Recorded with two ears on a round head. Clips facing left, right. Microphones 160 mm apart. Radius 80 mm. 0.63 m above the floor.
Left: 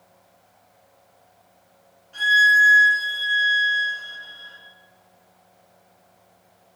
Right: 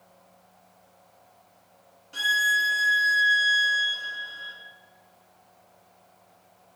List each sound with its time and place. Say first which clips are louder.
2.1 s a violin: left 8 dB; 65° right (ahead or behind), 1.3 m